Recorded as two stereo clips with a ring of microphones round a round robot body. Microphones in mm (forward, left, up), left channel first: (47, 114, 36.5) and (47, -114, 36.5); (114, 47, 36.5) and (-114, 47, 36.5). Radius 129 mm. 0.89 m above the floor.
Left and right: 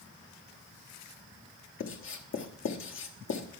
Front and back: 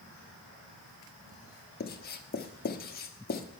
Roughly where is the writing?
Ahead left.